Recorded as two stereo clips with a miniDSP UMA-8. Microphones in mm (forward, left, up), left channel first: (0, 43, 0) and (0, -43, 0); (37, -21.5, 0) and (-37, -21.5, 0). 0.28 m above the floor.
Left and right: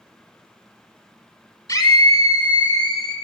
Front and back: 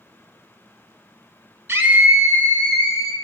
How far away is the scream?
About 2 m.